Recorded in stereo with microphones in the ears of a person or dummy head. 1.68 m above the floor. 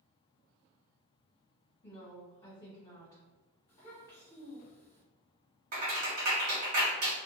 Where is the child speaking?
25° left (ahead or behind), 1.2 m.